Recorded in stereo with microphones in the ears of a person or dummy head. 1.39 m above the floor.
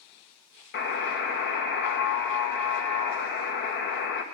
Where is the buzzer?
60° left (ahead or behind), 1.4 m.